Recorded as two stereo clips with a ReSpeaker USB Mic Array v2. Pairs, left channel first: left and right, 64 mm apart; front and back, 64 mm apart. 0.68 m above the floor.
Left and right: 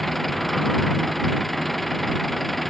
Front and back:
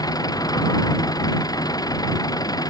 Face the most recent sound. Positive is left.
turn(degrees=0)